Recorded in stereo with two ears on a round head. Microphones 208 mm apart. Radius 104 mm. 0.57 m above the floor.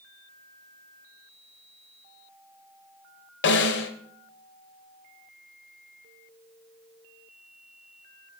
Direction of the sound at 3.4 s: 50° left (ahead or behind).